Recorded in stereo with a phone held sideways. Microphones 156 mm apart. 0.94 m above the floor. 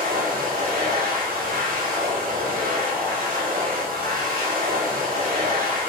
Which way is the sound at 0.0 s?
70° right (ahead or behind).